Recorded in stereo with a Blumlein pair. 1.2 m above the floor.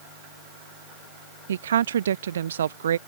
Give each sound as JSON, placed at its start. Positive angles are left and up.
{"t": 1.5, "sound": "a woman speaking", "azimuth_deg": -65}